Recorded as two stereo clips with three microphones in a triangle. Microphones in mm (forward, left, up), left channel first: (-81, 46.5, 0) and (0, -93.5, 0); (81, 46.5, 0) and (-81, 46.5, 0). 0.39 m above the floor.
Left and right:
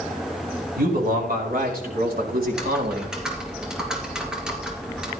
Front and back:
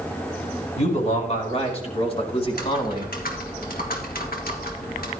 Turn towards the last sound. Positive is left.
turn(degrees=25)